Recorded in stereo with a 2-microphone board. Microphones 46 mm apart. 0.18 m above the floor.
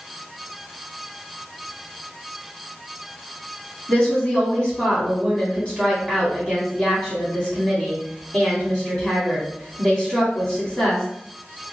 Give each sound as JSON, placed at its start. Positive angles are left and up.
{"t": 3.9, "sound": "a woman speaking", "side_deg": 20, "distance_m": 1.0}